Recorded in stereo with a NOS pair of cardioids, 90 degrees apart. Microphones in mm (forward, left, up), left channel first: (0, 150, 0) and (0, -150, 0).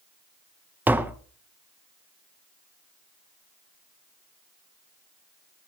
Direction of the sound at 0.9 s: 5° right.